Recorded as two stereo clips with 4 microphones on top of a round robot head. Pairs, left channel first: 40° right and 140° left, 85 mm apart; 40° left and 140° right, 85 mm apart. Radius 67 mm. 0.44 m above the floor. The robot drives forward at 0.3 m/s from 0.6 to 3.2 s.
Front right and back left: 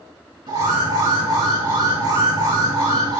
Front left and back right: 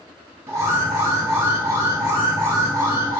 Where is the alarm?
165° left, 5.5 m.